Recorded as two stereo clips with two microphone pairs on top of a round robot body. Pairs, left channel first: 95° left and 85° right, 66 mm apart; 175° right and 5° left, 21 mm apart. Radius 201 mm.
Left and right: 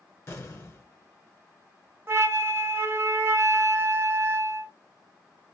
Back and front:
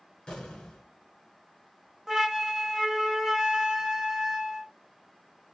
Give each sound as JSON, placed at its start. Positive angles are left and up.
{"t": 0.3, "sound": "an explosion", "azimuth_deg": 145, "distance_m": 2.0}
{"t": 2.1, "sound": "a flute", "azimuth_deg": -45, "distance_m": 1.2}